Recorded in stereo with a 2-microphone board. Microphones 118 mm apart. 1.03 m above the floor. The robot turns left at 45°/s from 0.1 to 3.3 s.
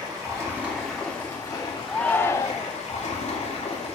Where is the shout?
175° left, 0.5 m; by 2.7 s 140° left, 0.5 m.